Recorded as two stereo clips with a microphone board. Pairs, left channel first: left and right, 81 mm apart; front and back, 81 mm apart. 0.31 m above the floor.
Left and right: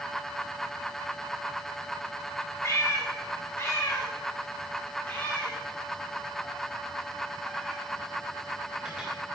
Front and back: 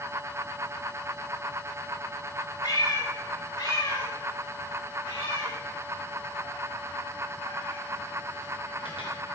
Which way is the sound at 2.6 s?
30° left.